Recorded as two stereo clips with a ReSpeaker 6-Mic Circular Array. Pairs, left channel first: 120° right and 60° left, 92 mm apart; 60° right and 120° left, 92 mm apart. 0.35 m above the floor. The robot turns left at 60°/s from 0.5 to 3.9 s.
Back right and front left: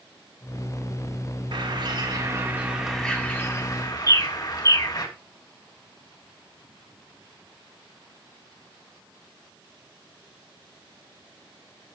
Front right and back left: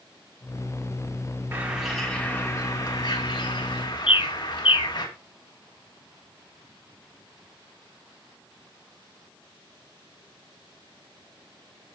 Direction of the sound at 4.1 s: 70° right.